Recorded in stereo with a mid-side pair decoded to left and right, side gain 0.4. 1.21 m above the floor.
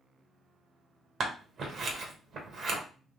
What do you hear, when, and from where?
1.2 s scissors: 65° right, 1.3 m